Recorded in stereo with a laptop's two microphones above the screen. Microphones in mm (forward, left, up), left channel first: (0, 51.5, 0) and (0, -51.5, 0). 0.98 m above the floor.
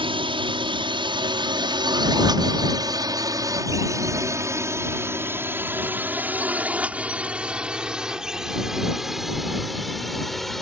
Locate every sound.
0.0 s a drone: 60° right (ahead or behind); by 10.6 s 5° left (ahead or behind)